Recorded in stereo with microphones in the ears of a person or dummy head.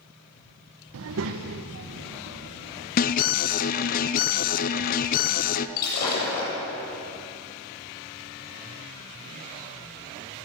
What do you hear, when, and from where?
0.9 s a child speaking: 70° right (ahead or behind), 0.6 m; by 2.9 s 75° right (ahead or behind), 3 m
3.0 s an alarm: 35° left (ahead or behind), 0.6 m
5.8 s breaking glass: 55° left (ahead or behind), 7.5 m